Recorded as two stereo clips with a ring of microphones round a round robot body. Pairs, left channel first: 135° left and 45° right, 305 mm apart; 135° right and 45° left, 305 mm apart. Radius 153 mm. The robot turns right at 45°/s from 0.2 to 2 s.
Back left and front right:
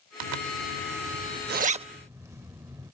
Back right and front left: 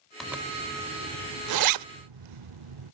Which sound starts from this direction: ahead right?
A zipper, at 0.2 s.